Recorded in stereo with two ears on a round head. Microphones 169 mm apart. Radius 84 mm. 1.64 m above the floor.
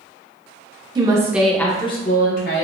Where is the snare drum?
No snare drum in this recording.